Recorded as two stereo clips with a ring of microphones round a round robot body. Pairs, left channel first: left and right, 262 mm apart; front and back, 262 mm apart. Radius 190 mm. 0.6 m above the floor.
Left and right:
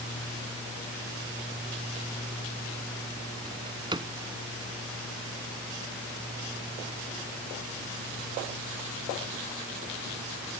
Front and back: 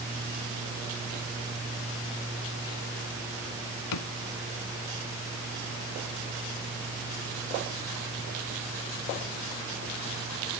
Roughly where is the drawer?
Ahead.